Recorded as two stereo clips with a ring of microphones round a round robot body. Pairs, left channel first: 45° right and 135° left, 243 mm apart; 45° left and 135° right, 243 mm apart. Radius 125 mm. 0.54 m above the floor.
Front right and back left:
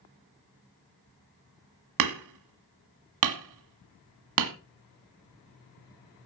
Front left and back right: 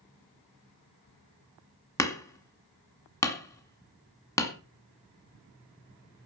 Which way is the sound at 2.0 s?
125° left.